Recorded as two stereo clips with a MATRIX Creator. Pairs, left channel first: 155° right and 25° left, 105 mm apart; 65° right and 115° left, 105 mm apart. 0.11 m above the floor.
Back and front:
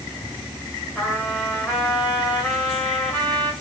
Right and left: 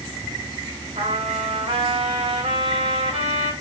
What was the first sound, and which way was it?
A trumpet, 115° left.